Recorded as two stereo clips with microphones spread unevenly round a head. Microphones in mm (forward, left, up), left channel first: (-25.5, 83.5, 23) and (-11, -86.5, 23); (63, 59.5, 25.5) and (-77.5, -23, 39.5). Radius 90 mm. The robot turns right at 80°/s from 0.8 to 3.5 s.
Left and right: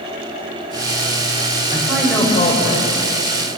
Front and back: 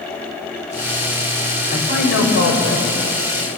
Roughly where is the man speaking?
Ahead.